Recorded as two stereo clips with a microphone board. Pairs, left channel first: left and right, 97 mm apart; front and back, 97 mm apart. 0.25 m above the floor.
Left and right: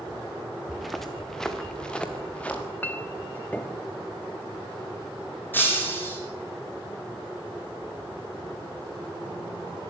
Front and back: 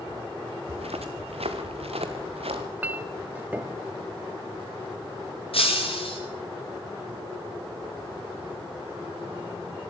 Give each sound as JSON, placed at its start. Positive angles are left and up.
{"t": 0.7, "sound": "footsteps", "azimuth_deg": 180, "distance_m": 2.5}
{"t": 2.8, "sound": "a clink", "azimuth_deg": 130, "distance_m": 0.8}
{"t": 5.5, "sound": "breaking glass", "azimuth_deg": 20, "distance_m": 9.5}